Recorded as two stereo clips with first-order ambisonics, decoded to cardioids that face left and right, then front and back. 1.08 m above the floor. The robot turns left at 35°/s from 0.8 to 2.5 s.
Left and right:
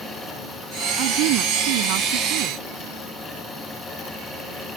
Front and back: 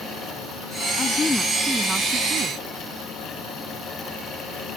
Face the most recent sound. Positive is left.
turn(degrees=-120)